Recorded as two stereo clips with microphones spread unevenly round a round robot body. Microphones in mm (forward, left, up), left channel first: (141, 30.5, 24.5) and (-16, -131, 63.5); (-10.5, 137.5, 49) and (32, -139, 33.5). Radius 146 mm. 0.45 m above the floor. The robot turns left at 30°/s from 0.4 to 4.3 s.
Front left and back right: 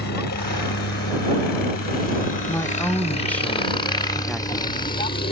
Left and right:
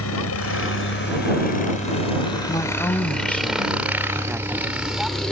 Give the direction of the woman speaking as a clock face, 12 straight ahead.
11 o'clock.